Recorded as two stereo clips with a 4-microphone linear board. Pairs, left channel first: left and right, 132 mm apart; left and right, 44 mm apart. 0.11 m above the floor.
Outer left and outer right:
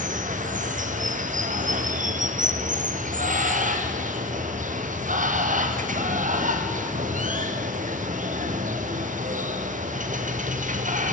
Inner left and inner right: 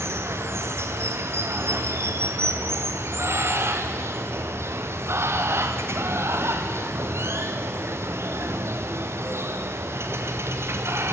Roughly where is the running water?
Right.